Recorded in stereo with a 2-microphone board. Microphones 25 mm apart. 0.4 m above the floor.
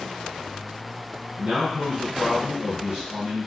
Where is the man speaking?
50° right (ahead or behind), 2 m.